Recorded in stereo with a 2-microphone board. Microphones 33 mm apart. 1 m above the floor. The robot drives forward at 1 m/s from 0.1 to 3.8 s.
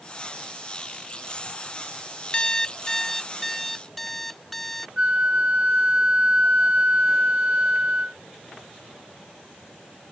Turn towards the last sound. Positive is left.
turn(degrees=-35)  # may be behind; listen again after turning